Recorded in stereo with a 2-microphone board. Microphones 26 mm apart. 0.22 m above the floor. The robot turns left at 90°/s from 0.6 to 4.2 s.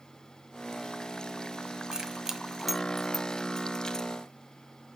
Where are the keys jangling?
25° right (ahead or behind), 0.7 m; by 4.1 s 25° left (ahead or behind), 0.7 m.